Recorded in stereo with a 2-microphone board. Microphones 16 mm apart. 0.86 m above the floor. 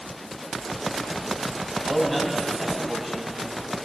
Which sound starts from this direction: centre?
A man speaking, at 1.8 s.